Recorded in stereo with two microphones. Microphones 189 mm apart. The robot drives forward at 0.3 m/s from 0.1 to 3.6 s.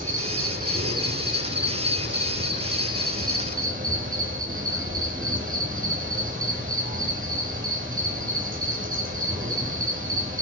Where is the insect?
45° right (ahead or behind), 0.8 m; by 10.4 s 50° right (ahead or behind), 0.8 m.